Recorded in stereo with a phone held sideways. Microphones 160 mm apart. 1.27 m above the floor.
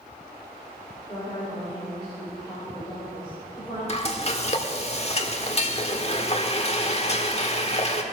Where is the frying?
40° left (ahead or behind), 1.4 m.